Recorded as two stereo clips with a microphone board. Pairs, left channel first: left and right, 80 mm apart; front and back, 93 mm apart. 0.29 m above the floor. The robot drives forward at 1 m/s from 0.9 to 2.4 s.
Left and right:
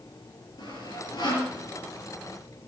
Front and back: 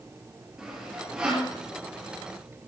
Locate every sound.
0.6 s sawing: 100° left, 7 m; by 1.5 s 105° left, 7 m